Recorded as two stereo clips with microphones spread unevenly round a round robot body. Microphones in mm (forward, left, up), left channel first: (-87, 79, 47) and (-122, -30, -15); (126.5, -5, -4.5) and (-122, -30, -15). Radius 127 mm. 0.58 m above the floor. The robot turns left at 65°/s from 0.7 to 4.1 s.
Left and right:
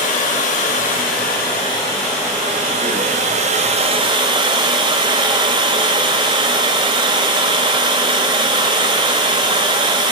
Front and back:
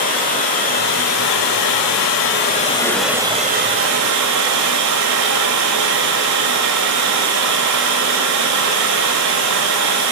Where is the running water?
65° left, 1.3 m; by 10.1 s 155° right, 1.3 m.